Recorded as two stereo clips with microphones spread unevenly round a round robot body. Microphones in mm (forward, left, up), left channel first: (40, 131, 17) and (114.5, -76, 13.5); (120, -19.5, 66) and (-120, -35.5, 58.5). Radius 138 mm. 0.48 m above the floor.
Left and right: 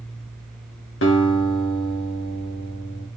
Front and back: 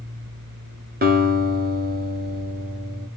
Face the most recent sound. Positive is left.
turn(degrees=140)